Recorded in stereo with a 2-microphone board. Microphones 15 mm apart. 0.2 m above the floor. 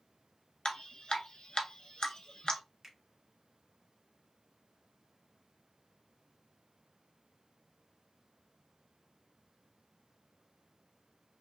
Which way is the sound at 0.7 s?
65° left (ahead or behind).